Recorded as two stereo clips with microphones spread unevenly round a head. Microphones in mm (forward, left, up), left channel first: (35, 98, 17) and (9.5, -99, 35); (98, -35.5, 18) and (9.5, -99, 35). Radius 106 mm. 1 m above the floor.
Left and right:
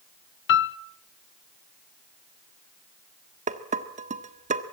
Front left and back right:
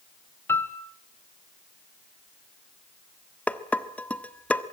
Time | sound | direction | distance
0.5 | a piano | 110° left | 0.8 m
3.5 | dishes clattering | 40° right | 1.5 m